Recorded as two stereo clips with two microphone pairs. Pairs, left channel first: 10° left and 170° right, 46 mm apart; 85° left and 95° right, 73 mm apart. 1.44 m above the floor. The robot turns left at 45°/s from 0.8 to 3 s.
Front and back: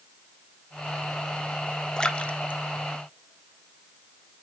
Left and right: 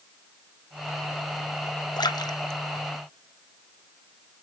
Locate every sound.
2.0 s a splash: 80° left, 0.7 m; by 4.0 s 35° left, 0.7 m